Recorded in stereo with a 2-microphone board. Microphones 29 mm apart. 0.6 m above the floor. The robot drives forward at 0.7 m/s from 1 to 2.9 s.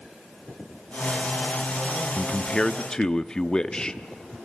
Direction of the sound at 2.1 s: 25° left (ahead or behind).